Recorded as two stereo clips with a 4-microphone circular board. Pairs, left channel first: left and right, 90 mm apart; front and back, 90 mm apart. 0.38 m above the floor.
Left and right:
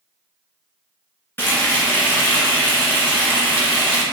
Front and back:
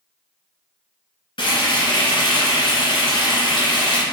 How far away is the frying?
About 1.3 m.